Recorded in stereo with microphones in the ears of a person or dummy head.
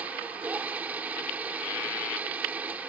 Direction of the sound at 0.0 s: 5° right (ahead or behind).